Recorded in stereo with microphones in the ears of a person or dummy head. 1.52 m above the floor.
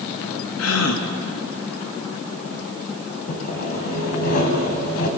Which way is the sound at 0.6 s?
80° left.